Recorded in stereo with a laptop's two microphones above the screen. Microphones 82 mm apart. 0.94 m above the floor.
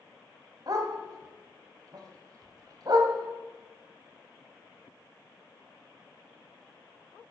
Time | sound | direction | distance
0.7 | a dog barking | 50° right (ahead or behind) | 1.4 m